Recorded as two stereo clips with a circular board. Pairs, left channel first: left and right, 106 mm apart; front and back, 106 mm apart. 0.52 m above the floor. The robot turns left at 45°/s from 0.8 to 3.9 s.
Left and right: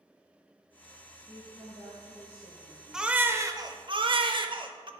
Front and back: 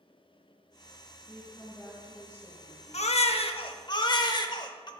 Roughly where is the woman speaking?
Ahead right.